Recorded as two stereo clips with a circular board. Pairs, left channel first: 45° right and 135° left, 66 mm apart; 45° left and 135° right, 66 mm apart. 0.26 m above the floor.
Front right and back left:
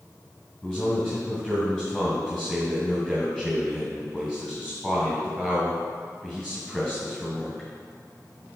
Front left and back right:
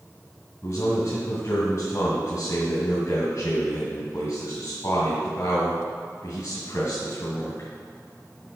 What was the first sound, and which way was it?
A man speaking, 45° left.